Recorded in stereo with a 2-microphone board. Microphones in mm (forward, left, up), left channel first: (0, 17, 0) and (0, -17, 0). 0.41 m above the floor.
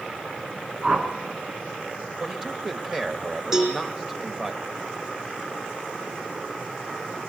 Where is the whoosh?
25° right (ahead or behind), 4 m.